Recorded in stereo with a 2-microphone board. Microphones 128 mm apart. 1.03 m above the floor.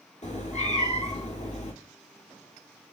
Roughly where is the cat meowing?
Left.